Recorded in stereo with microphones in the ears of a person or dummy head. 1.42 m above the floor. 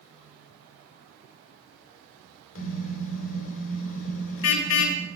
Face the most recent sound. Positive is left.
turn(degrees=70)  # may be behind; listen again after turning